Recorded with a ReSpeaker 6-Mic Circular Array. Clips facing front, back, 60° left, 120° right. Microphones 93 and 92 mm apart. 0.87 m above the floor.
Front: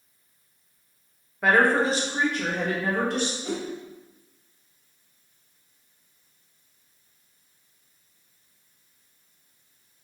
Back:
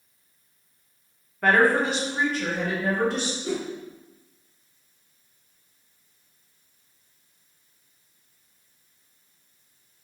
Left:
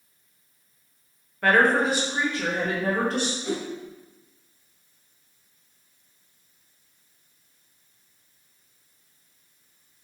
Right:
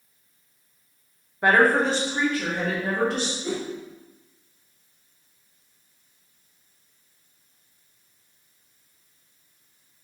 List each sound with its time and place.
1.4 s a woman speaking: 80° right, 0.7 m; by 3.3 s 15° left, 1.8 m
3.4 s a whoosh: 10° right, 1.6 m